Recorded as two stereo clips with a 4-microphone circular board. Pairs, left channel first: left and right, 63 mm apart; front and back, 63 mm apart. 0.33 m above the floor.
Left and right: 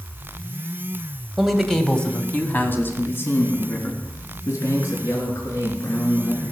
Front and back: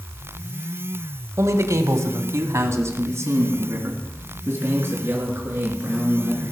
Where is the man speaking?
175° right, 1.4 m; by 6.5 s 120° left, 5 m.